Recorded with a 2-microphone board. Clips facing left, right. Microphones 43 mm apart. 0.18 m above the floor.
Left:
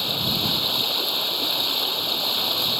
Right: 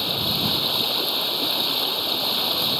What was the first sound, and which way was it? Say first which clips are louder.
Running water: even; centre (ahead or behind).